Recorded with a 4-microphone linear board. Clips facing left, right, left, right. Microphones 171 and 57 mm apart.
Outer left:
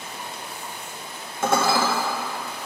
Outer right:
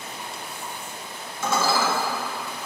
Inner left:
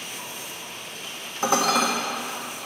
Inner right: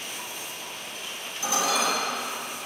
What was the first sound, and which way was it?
Dishes clattering, 55° left (ahead or behind).